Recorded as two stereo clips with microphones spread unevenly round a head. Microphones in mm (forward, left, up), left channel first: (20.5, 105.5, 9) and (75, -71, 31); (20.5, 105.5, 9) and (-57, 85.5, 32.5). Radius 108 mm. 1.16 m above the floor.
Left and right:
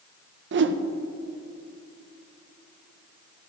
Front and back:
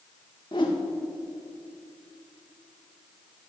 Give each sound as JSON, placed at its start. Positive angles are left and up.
{"t": 0.5, "sound": "a whoosh", "azimuth_deg": -50, "distance_m": 0.6}